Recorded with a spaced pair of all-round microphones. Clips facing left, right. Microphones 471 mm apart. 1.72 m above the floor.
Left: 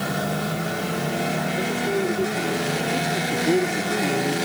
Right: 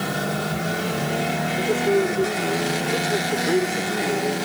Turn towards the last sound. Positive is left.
turn(degrees=45)  # may be behind; listen again after turning